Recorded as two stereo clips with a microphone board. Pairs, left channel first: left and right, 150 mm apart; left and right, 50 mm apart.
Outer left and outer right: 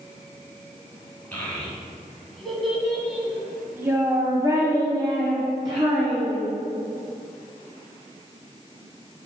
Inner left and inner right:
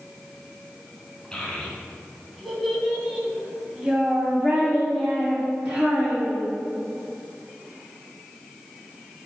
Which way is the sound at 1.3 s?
10° left (ahead or behind).